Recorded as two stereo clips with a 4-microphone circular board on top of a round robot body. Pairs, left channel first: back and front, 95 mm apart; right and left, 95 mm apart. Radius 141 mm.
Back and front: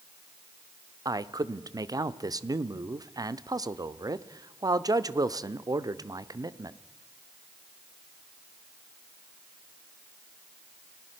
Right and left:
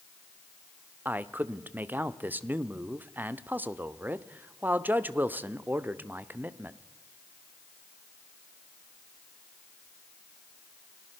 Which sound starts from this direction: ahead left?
A man speaking, at 1.1 s.